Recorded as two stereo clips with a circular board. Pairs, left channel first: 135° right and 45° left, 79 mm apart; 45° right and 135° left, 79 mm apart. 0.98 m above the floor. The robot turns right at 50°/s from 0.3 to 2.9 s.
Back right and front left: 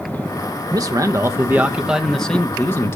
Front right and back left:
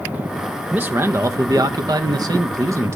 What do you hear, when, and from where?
0.7 s a man speaking: 70° left, 0.6 m; by 3.0 s straight behind, 0.6 m